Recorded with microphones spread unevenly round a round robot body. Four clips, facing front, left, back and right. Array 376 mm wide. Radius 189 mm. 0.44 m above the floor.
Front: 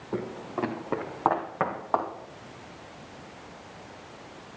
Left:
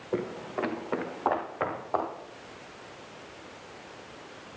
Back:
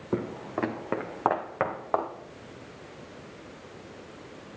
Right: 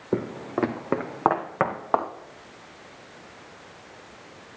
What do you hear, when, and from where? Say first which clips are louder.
0.1 s footsteps: right 4 dB, back 2 dB; 130° right, 1.5 m; by 2.1 s 90° right, 3.5 m